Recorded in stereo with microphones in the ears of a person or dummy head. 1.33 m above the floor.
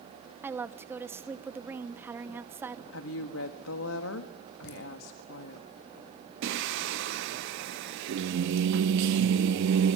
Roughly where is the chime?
I don't hear a chime.